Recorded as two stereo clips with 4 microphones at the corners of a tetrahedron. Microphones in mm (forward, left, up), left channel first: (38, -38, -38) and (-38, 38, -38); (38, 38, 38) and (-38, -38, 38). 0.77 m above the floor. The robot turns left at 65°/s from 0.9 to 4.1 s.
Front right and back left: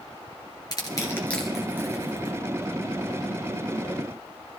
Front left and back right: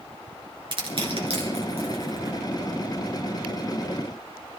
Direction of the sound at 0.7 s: 95° right.